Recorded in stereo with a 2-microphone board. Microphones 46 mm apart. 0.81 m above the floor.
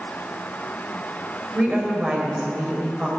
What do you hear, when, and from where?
1.6 s a woman speaking: 25° right (ahead or behind), 3.5 m